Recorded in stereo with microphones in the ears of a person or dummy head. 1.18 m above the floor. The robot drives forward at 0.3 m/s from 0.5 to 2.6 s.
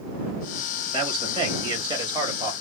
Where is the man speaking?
25° right (ahead or behind), 1.6 m; by 2.5 s 20° right (ahead or behind), 2.0 m.